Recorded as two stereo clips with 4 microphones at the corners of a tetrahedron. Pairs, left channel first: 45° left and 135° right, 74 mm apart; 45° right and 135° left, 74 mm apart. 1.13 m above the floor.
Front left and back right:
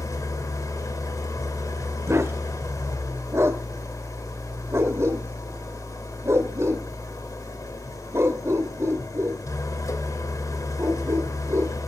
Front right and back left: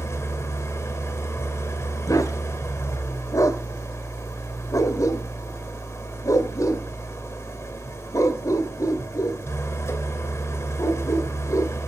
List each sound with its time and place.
0.0 s an engine running: 5° left, 2.5 m
2.1 s a dog barking: 85° right, 1.8 m